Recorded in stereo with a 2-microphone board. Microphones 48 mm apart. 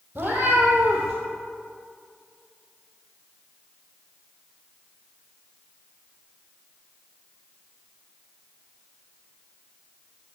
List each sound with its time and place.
0.1 s a cat meowing: 40° right (ahead or behind), 2 m; by 1.1 s 20° right (ahead or behind), 2 m